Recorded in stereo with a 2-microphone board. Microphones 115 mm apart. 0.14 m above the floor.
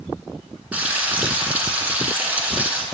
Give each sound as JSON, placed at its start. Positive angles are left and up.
{"t": 0.7, "sound": "frying", "side_deg": -15, "distance_m": 1.1}